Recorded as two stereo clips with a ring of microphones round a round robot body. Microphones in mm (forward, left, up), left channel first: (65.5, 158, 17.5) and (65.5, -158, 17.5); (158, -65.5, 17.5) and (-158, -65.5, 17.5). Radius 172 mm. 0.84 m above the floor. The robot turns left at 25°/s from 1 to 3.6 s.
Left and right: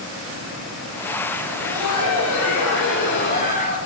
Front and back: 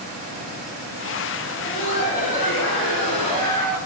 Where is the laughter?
80° left, 5 m; by 3.8 s 25° left, 5 m.